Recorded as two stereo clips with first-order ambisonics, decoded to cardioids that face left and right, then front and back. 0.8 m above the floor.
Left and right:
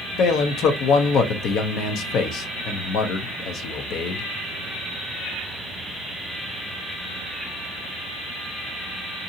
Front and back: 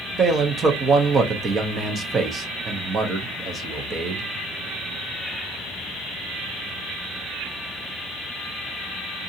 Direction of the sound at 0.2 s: 120° left.